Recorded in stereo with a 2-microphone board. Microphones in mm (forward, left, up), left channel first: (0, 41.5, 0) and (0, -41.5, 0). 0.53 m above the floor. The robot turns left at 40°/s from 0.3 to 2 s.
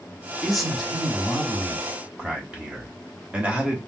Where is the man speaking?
Centre (ahead or behind), 1.1 m; by 3.8 s 15° right (ahead or behind), 1.1 m.